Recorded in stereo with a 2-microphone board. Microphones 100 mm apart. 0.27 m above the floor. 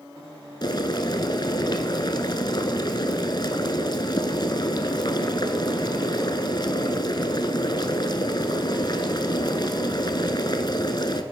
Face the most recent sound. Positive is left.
turn(degrees=45)  # may be behind; listen again after turning